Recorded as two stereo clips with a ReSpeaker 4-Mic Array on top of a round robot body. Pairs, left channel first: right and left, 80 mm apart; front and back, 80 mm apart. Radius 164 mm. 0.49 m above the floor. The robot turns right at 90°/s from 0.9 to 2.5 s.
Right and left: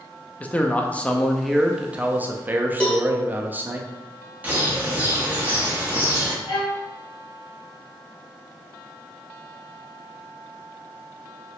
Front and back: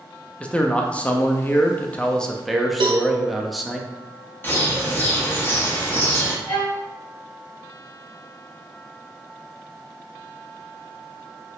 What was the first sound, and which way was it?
A man speaking, 50° right.